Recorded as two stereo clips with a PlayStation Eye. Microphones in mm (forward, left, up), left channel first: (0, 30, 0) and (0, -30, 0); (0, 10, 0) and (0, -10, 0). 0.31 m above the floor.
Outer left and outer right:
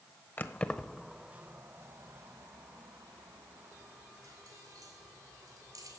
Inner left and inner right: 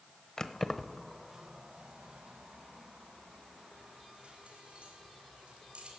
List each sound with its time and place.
0.4 s keys jangling: 35° left (ahead or behind), 0.8 m; by 6.0 s 80° right, 4 m